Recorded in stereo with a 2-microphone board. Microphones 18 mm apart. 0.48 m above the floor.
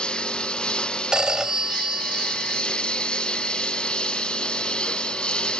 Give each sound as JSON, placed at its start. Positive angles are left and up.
{"t": 0.0, "sound": "a lawn mower", "side_deg": 70}
{"t": 1.1, "sound": "a phone ringing", "side_deg": -50}